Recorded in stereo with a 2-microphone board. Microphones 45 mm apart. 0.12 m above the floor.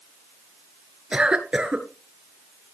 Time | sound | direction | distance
1.1 | a cough | 20° right (ahead or behind) | 1.7 m